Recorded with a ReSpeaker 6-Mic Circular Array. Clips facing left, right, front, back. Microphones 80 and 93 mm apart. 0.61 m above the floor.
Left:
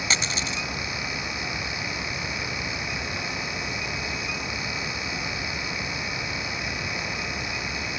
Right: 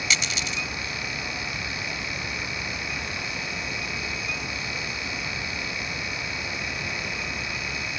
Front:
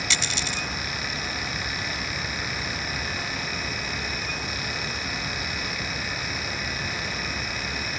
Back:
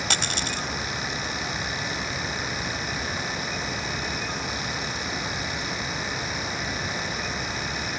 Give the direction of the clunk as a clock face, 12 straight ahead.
I don't hear a clunk.